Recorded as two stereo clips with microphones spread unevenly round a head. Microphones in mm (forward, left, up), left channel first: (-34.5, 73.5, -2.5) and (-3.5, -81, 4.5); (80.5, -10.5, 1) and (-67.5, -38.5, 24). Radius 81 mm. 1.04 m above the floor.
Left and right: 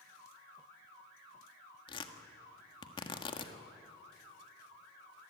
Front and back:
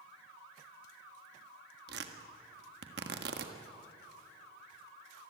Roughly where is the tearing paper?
Behind.